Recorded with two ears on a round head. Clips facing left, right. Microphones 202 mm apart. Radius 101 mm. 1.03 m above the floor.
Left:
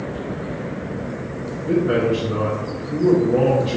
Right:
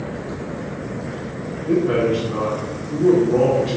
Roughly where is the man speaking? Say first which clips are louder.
Right 1 dB; centre.